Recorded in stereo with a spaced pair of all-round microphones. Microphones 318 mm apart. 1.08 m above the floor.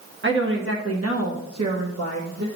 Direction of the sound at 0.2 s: 40° right (ahead or behind).